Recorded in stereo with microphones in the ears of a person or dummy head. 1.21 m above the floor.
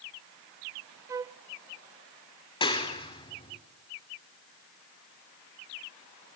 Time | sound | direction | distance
1.1 | a flute | 15° right (ahead or behind) | 0.6 m
2.6 | a clap | 30° left (ahead or behind) | 2.5 m